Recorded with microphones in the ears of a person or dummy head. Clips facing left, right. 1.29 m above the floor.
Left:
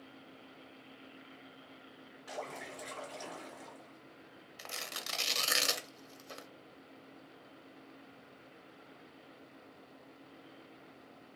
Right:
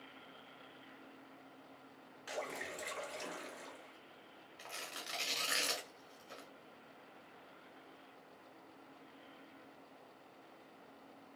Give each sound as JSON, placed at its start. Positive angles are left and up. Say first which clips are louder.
{"t": 2.3, "sound": "a splash", "louder": "even", "side_deg": -40, "distance_m": 2.0}
{"t": 4.6, "sound": "tearing paper", "louder": "left 3 dB", "side_deg": 70, "distance_m": 0.6}